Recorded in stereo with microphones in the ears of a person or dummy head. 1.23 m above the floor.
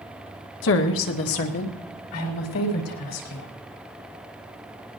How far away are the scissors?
No scissors in this recording.